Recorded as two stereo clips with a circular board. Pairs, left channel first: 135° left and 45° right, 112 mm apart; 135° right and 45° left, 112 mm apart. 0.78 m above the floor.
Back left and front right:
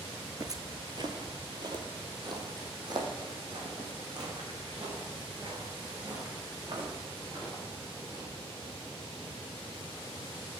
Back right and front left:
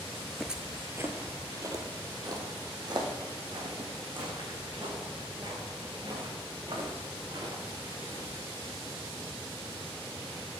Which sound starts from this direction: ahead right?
Footsteps, at 0.4 s.